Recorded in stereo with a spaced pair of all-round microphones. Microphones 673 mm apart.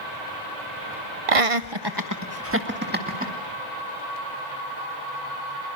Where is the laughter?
55° right (ahead or behind), 0.6 m; by 3.3 s 10° right (ahead or behind), 2.5 m.